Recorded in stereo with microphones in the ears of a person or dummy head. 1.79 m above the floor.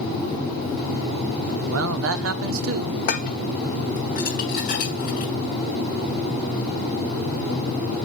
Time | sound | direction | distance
1.7 | a man speaking | 65° right (ahead or behind) | 1.2 m
3.1 | dishes clattering | 40° left (ahead or behind) | 1.2 m